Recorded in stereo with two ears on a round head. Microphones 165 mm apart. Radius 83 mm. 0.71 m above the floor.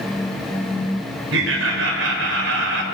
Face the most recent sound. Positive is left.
turn(degrees=-75)  # may be behind; listen again after turning